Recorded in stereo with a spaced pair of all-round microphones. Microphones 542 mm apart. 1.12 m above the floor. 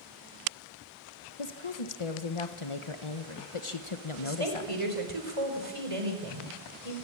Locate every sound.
1.4 s a woman speaking: 65° left (ahead or behind), 1.3 m
4.2 s a woman speaking: 75° right (ahead or behind), 4 m